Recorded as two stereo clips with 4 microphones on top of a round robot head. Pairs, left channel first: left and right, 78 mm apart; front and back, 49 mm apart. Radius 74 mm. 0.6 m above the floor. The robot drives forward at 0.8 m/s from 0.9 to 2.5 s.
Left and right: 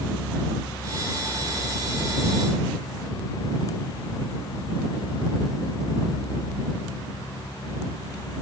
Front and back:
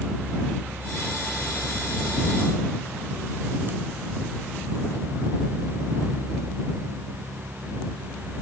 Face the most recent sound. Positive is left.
No sound to turn to.